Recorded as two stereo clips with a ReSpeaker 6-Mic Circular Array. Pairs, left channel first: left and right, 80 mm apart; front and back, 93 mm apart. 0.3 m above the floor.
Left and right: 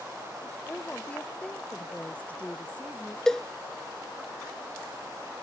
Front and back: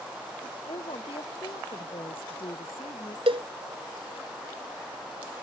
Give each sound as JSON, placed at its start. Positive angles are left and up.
{"t": 0.7, "sound": "a woman speaking", "azimuth_deg": 15}
{"t": 3.3, "sound": "a cowbell", "azimuth_deg": 170}